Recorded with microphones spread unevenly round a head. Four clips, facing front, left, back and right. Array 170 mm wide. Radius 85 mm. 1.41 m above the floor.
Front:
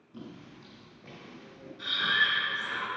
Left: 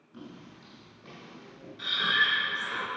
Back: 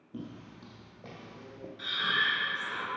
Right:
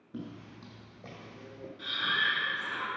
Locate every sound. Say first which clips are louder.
0.1 s footsteps: right 3 dB, back 2 dB; 140° right, 3 m; by 1.7 s 160° right, 2.5 m
1.8 s breathing: left 4 dB, front 2 dB; 95° left, 2 m